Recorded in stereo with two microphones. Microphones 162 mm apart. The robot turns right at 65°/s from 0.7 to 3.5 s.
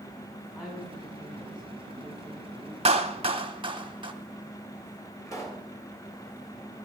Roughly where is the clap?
Right.